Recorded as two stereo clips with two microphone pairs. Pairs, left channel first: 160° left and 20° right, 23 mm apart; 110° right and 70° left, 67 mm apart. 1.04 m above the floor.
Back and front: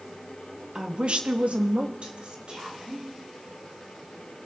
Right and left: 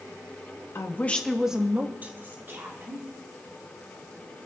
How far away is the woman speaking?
About 1.0 m.